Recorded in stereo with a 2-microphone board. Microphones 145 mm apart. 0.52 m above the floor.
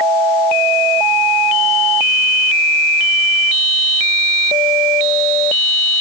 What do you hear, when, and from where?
Only background noise.